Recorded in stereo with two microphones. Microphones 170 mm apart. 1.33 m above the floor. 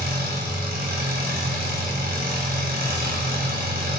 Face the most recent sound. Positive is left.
turn(degrees=-60)  # may be behind; listen again after turning